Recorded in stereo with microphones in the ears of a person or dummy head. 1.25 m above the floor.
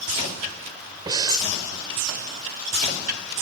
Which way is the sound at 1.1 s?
20° right (ahead or behind).